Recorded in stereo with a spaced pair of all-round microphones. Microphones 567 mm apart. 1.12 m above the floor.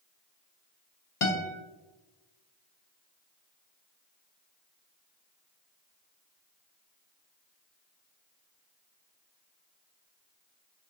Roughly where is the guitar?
Left.